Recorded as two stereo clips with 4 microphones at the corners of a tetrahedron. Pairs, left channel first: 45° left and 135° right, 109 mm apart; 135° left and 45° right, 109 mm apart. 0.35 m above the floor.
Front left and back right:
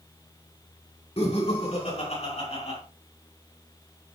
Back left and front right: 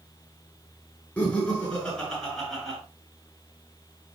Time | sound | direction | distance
1.2 | laughter | 55° left | 5 m